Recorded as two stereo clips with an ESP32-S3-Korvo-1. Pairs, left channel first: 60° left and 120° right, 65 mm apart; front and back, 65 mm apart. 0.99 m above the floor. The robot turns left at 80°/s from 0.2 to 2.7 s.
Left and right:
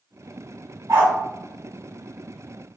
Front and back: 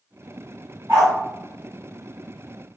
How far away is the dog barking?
About 1.8 m.